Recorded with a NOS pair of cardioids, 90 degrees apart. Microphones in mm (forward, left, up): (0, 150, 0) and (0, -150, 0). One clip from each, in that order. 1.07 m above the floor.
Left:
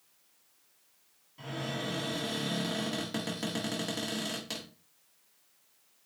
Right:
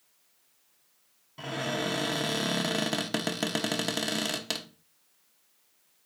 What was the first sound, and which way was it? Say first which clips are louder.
A cupboard door: right 6 dB; 50° right.